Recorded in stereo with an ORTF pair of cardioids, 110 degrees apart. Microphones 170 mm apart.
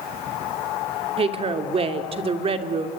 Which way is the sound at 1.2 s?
35° right.